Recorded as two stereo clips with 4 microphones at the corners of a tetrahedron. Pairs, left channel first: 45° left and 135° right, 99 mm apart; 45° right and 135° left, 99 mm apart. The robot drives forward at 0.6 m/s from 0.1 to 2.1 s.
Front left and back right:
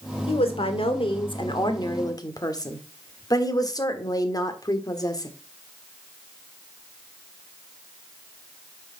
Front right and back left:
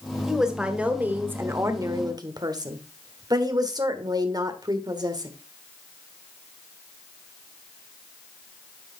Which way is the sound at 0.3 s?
50° left.